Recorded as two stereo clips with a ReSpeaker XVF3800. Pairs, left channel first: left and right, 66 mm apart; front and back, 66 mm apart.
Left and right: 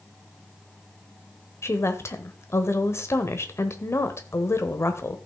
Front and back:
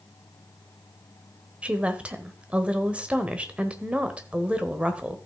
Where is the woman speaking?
115° left, 1.1 m.